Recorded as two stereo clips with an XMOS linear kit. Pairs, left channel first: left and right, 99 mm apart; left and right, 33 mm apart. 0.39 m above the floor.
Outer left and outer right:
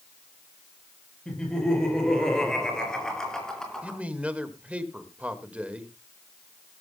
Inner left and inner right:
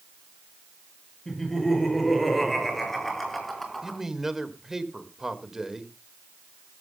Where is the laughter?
5° left (ahead or behind), 7 m.